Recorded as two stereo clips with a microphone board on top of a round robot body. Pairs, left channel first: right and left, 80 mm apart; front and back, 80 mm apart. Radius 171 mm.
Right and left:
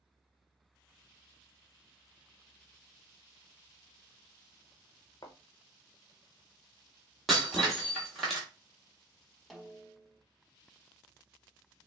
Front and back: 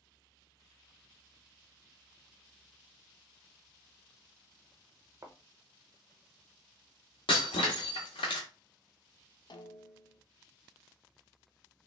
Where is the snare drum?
Straight ahead, 0.8 m.